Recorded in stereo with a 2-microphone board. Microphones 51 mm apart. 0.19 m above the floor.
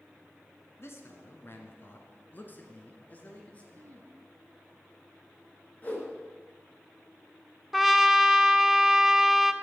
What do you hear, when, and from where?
0.8 s a man speaking: 55° left (ahead or behind), 1.6 m; by 3.6 s 25° left (ahead or behind), 2.5 m
3.7 s throat clearing: 70° right (ahead or behind), 2.5 m
5.8 s a whoosh: 30° left (ahead or behind), 3 m
7.7 s a trumpet: 5° right (ahead or behind), 0.6 m